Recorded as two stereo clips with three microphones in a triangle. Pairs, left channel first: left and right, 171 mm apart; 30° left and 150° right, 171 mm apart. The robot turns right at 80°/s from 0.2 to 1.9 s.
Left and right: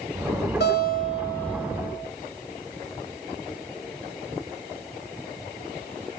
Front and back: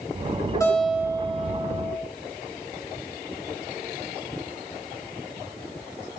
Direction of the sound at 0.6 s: 100° left.